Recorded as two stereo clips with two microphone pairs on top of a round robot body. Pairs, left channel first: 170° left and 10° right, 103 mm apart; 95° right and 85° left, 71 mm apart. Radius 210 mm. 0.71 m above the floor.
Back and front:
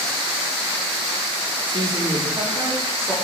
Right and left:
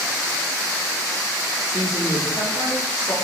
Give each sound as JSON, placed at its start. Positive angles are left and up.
{"t": 1.7, "sound": "a woman speaking", "azimuth_deg": -50, "distance_m": 2.5}